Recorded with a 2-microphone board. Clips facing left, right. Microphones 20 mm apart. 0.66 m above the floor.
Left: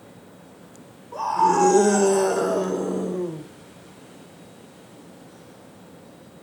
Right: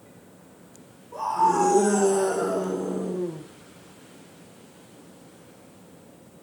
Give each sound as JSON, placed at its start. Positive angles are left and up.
{"t": 1.1, "sound": "a scream", "side_deg": 30, "distance_m": 3.0}